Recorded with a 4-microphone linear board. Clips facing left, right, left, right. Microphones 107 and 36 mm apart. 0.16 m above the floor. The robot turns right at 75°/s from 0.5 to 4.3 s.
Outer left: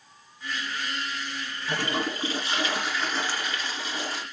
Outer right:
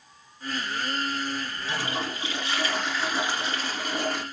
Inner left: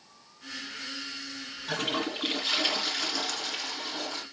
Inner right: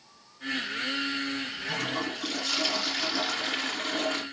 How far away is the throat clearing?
No throat clearing in this recording.